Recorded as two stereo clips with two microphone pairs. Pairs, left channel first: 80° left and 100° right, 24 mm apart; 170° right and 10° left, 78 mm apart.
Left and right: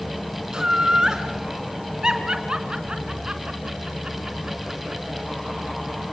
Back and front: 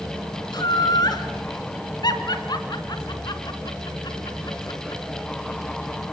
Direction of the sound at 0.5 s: 160° right.